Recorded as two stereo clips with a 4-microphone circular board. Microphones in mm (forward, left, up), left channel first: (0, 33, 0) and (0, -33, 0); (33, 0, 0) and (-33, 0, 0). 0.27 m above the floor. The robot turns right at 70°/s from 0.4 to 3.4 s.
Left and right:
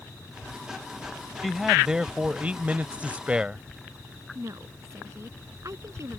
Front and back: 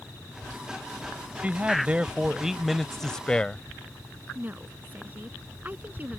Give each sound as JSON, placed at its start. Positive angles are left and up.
{"t": 1.4, "sound": "a man speaking", "azimuth_deg": 180}
{"t": 4.3, "sound": "a woman speaking", "azimuth_deg": -120}